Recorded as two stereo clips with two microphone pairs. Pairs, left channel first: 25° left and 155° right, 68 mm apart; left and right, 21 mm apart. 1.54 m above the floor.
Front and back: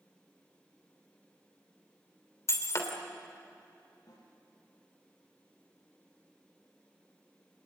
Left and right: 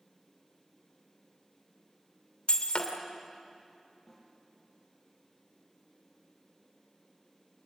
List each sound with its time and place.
2.5 s breaking glass: 65° left, 2.5 m
4.1 s a snare drum: 5° left, 7.5 m